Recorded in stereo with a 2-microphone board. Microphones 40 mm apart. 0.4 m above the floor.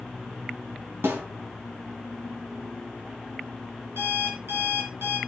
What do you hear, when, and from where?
1.0 s a snare drum: 75° right (ahead or behind), 4 m
4.0 s an alarm clock: 75° right (ahead or behind), 4 m